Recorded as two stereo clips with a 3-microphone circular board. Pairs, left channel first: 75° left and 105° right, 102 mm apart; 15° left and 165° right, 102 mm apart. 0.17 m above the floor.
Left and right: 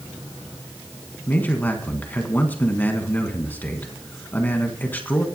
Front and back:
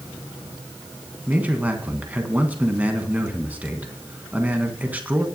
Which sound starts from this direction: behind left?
A man speaking, at 1.3 s.